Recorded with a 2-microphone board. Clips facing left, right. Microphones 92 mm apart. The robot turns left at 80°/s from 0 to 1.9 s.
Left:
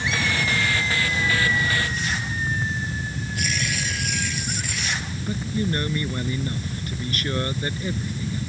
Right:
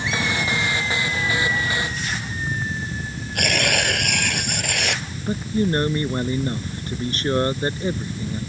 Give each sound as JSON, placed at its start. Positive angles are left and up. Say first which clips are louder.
{"t": 3.4, "sound": "tearing paper", "louder": "right 8 dB", "side_deg": -65}
{"t": 5.3, "sound": "a man speaking", "louder": "right 5 dB", "side_deg": -30}